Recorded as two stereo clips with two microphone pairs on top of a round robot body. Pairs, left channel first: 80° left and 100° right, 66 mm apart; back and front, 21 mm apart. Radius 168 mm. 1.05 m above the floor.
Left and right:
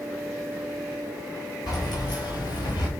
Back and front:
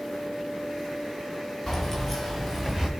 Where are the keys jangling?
105° left, 2 m; by 2.9 s 75° left, 0.9 m.